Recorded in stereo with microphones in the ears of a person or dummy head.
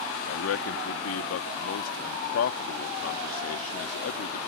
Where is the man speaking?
80° left.